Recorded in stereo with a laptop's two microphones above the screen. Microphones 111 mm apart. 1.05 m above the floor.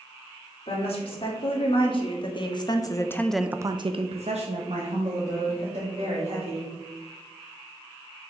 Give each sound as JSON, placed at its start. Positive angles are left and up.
{"t": 0.7, "sound": "a woman speaking", "side_deg": 55, "distance_m": 2.5}